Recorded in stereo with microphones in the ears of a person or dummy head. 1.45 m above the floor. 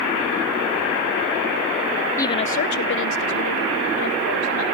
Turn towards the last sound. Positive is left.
turn(degrees=85)